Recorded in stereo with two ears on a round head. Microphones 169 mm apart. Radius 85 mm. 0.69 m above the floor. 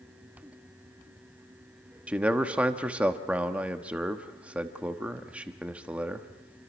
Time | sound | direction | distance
2.1 | a man speaking | 5° right (ahead or behind) | 1.3 m